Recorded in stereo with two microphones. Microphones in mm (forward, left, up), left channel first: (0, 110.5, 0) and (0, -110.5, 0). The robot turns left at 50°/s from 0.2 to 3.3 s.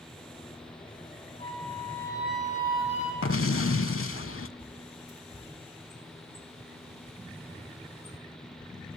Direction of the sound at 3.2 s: 80° left.